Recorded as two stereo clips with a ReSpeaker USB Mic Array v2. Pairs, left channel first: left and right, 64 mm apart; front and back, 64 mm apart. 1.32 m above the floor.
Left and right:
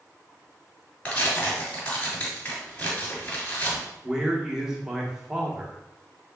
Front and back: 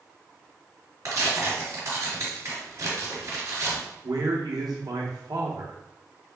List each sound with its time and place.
1.1 s tearing paper: 150° left, 2 m
4.0 s a man speaking: 170° right, 1.0 m